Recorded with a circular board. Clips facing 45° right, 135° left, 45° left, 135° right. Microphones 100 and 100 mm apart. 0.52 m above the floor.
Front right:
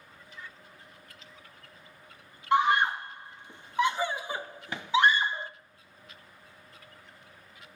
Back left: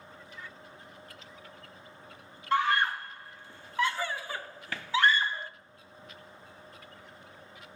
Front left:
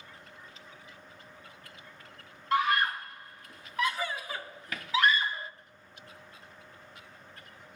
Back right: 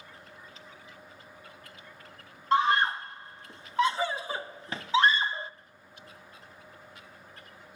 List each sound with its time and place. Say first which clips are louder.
2.5 s a scream: front right 3 dB, back right 3 dB; 100° right, 0.8 m